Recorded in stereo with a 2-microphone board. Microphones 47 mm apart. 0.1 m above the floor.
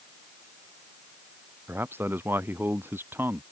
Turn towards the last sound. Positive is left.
turn(degrees=-55)  # may be behind; listen again after turning